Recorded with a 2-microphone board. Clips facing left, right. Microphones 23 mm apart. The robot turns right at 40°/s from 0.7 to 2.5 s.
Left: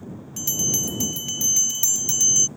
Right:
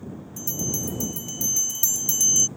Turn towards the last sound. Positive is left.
turn(degrees=170)